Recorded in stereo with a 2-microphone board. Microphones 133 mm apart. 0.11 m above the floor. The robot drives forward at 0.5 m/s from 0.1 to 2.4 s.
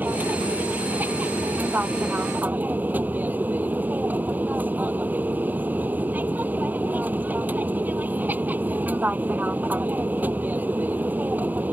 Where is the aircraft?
15° right (ahead or behind).